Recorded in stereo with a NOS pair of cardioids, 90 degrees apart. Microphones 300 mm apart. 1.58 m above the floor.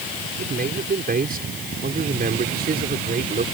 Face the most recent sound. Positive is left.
turn(degrees=-30)